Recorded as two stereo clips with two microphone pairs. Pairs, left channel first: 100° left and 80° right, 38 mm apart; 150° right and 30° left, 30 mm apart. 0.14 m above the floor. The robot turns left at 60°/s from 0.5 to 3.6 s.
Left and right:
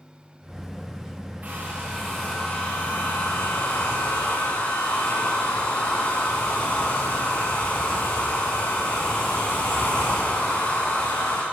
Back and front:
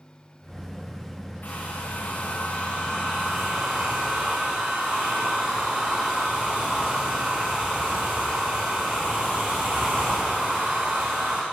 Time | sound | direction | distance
1.4 | a hair dryer | 125° right | 9.5 m